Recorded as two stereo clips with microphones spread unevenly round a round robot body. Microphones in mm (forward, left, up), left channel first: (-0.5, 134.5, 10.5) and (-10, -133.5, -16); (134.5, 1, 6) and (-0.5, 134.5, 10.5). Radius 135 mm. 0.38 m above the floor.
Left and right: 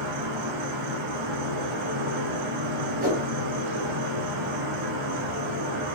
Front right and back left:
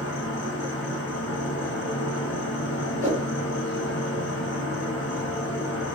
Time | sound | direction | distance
0.0 | an insect | 95° right | 2.5 m
3.0 | a whoosh | 150° right | 2 m